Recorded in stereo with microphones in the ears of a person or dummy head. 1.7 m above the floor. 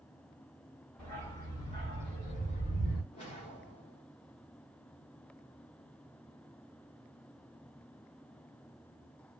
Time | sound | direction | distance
1.0 | a dog barking | 5° left (ahead or behind) | 1.5 m
3.1 | a whoosh | 35° left (ahead or behind) | 1.1 m